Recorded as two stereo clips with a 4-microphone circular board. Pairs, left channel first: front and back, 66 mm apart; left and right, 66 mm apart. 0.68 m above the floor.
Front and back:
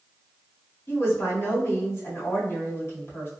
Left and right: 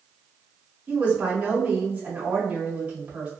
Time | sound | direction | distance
0.9 | a woman speaking | 30° right | 1.8 m